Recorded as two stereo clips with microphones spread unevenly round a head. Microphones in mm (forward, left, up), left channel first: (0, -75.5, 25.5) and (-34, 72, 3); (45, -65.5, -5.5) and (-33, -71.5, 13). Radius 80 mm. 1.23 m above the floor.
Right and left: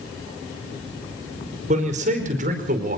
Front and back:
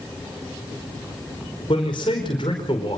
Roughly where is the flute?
I don't hear a flute.